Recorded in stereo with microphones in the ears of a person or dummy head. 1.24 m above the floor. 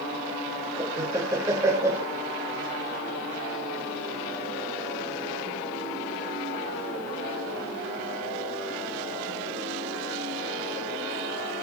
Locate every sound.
0.8 s laughter: 15° right (ahead or behind), 0.6 m